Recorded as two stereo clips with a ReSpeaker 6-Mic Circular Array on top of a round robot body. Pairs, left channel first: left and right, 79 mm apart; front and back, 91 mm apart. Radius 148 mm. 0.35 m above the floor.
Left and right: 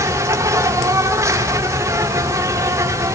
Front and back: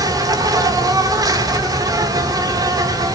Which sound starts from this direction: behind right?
An insect, at 0.0 s.